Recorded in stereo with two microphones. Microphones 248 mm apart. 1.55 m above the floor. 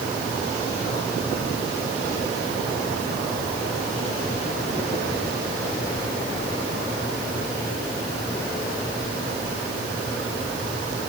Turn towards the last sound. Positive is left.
No sound to turn to.